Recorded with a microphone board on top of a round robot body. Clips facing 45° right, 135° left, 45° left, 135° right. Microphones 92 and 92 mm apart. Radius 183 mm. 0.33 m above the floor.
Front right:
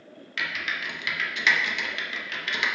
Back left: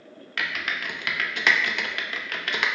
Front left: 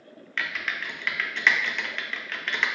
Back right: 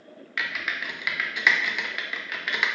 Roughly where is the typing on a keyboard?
Behind left.